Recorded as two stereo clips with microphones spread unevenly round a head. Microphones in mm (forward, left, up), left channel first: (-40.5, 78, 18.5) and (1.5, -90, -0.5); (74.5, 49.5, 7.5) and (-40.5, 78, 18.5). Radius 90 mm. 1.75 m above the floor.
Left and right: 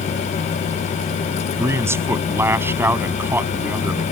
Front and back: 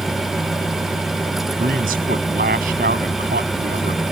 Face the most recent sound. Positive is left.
turn(degrees=-155)